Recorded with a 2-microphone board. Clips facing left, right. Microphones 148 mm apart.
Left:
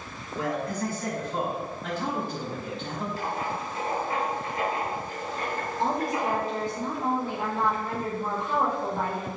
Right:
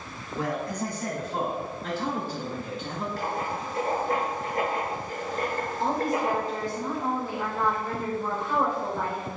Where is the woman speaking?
20° left (ahead or behind), 1.3 m.